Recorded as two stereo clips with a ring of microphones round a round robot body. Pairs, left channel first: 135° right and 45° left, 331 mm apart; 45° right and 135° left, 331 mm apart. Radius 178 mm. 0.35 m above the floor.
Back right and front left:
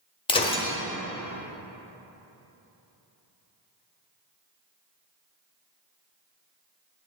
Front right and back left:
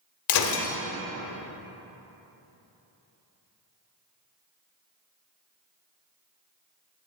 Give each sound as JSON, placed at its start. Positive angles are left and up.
{"t": 0.3, "sound": "breaking glass", "azimuth_deg": -65, "distance_m": 1.1}